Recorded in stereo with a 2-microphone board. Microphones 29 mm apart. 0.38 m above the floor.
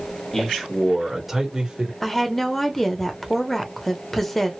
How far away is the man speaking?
About 1.5 m.